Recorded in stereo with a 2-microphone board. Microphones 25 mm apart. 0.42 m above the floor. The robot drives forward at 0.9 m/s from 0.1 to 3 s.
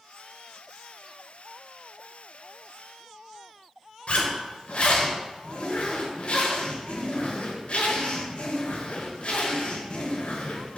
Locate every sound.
4.1 s a zipper: 60° left (ahead or behind), 4 m